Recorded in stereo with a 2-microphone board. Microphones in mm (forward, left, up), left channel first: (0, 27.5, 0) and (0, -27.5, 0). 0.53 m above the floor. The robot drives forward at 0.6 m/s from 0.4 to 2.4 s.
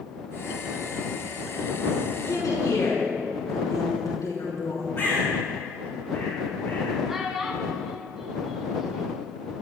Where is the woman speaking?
80° left, 5.5 m.